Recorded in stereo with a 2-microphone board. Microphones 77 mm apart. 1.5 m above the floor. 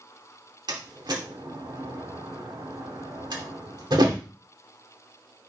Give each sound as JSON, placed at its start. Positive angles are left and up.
{"t": 0.7, "sound": "a door slam", "side_deg": -65, "distance_m": 2.5}